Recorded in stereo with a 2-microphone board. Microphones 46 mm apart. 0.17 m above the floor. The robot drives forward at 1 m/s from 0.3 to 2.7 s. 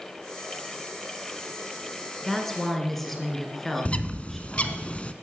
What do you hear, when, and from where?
2.2 s a woman speaking: 10° left (ahead or behind), 2.0 m; by 4.8 s 5° left (ahead or behind), 2.5 m
3.9 s a bird: 30° left (ahead or behind), 0.5 m